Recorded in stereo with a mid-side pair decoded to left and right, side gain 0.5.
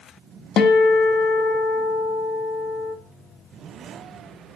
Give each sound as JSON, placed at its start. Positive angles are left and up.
{"t": 0.6, "sound": "a guitar", "azimuth_deg": 70, "distance_m": 1.5}